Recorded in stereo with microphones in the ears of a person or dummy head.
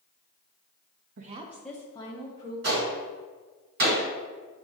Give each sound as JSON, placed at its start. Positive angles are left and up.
{"t": 1.2, "sound": "a woman speaking", "side_deg": -45, "distance_m": 0.6}
{"t": 2.6, "sound": "a gunshot", "side_deg": -50, "distance_m": 2.0}